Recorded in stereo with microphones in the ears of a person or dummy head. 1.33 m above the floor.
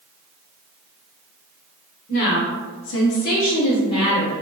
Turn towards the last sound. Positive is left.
turn(degrees=25)  # may be behind; listen again after turning